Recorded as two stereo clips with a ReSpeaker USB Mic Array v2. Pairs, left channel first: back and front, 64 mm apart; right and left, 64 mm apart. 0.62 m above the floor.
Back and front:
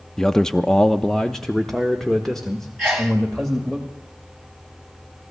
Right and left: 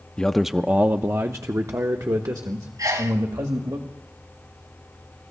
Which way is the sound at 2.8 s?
90° left.